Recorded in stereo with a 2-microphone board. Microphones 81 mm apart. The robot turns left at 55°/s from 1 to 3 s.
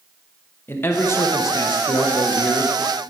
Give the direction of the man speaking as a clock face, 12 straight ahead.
7 o'clock.